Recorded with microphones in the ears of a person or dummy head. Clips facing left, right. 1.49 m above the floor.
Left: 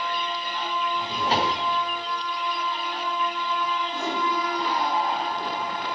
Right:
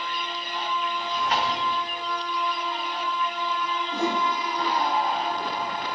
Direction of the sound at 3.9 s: 60° right (ahead or behind).